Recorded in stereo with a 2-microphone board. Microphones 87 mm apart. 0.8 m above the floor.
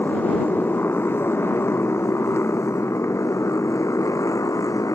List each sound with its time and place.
0.0 s a motorcycle: 25° left (ahead or behind); by 5.0 s 40° left (ahead or behind)